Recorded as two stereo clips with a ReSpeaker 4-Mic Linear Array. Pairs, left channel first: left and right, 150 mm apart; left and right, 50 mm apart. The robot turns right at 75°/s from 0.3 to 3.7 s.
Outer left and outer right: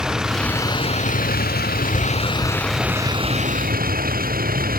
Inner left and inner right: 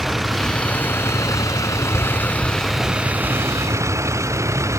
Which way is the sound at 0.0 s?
5° right.